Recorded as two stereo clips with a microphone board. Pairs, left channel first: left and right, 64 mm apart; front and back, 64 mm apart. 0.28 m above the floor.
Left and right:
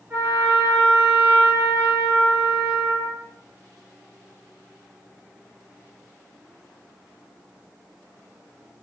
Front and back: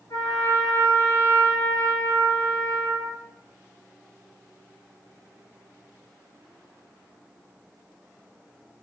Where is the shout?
No shout in this recording.